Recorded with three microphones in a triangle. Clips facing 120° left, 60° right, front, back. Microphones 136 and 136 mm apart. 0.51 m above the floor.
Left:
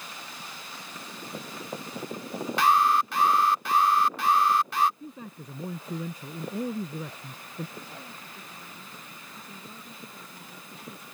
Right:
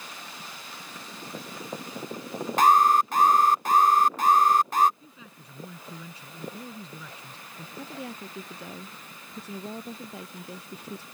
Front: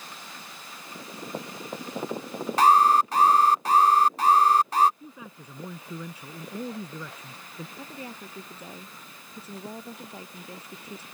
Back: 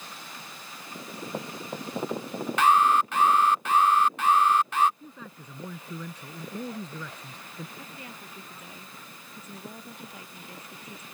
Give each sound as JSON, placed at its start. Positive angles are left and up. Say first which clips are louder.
{"t": 2.6, "sound": "an alarm", "louder": "right 3 dB, front 3 dB", "azimuth_deg": -40}
{"t": 5.0, "sound": "a man speaking", "louder": "left 9 dB, front 1 dB", "azimuth_deg": 80}
{"t": 7.8, "sound": "a woman speaking", "louder": "right 6 dB, front 4 dB", "azimuth_deg": -60}